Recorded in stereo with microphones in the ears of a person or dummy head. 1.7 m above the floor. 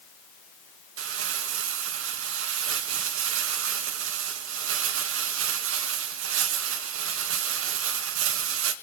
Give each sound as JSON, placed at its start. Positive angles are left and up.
{"t": 1.0, "sound": "crumpling", "side_deg": -85, "distance_m": 2.0}